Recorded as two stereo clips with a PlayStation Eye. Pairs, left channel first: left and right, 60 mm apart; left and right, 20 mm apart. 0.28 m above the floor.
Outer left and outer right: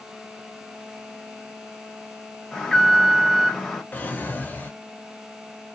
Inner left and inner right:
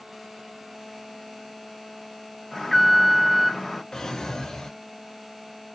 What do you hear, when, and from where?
2.5 s an alarm: 5° left (ahead or behind), 0.9 m
3.9 s a drawer: 30° left (ahead or behind), 0.7 m